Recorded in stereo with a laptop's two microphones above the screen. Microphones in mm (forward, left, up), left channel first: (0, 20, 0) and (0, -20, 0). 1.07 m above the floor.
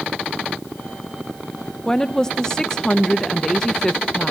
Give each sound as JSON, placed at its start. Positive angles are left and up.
{"t": 1.9, "sound": "a woman speaking", "side_deg": 15, "distance_m": 0.7}